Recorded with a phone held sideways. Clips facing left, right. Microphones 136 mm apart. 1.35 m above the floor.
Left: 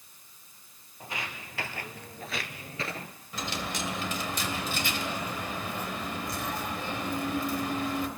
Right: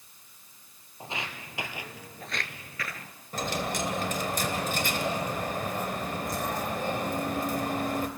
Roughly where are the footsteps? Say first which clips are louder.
Right 1 dB; right.